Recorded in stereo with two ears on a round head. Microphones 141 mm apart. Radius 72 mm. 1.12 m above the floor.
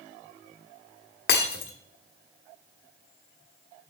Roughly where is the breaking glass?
Left.